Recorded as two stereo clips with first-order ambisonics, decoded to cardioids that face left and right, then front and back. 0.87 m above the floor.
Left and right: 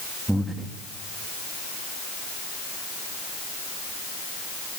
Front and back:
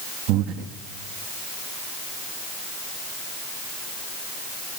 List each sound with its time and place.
0.3 s breathing: 175° right, 1.5 m